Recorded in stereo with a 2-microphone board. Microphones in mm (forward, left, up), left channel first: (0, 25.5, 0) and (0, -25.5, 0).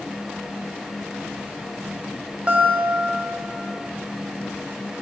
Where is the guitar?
25° right (ahead or behind), 0.7 m.